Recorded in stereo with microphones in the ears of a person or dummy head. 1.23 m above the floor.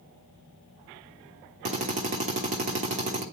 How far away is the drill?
About 1.4 m.